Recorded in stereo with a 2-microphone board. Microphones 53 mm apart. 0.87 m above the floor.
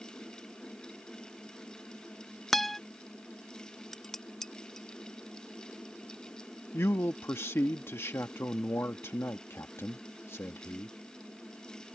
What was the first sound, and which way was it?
A guitar, 5° left (ahead or behind).